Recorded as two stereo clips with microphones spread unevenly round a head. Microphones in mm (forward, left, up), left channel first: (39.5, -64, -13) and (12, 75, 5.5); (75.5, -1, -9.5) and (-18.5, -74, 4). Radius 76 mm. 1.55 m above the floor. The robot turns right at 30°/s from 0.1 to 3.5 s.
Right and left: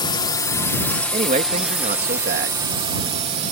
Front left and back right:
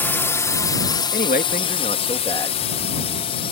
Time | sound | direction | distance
0.0 | a drone | 30° right | ?
1.1 | a man speaking | 65° left | ?